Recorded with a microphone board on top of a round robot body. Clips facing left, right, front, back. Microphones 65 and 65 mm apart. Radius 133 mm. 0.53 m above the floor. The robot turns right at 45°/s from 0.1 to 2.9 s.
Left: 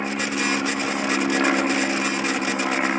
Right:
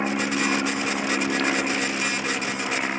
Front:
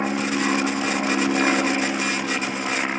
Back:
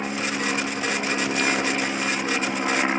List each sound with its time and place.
0.0 s an aircraft: 20° right; by 3.0 s 115° left